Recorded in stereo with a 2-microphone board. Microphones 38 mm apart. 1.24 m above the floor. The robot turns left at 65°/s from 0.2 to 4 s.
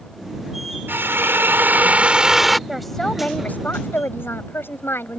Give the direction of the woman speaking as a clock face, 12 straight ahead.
6 o'clock.